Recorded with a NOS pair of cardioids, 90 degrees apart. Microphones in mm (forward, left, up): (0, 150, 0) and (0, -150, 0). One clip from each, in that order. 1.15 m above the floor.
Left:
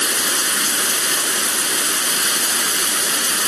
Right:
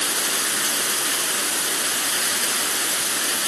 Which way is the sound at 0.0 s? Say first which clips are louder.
Left 4 dB; 40° left.